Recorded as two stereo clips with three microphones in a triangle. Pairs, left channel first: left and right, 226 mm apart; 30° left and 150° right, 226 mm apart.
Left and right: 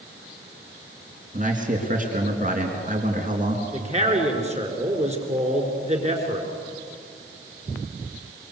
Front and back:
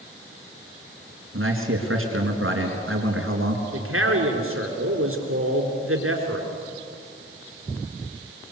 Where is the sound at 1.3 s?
140° right, 3.5 m.